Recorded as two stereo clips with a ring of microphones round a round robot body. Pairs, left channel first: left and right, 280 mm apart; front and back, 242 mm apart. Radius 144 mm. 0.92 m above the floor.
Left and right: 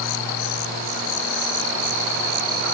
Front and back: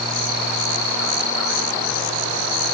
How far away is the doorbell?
No doorbell in this recording.